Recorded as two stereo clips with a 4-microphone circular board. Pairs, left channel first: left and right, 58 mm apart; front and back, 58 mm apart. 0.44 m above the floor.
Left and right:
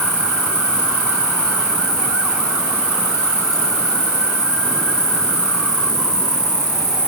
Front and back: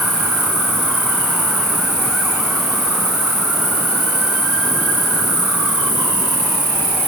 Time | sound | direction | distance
0.0 | an insect | 125° left | 7 m